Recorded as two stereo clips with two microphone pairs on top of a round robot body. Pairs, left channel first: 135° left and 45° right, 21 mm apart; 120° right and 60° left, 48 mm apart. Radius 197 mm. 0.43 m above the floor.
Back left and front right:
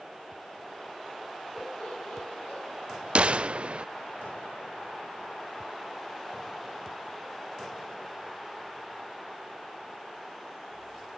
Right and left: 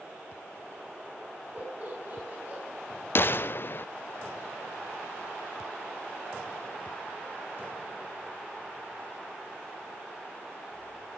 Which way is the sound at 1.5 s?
115° left.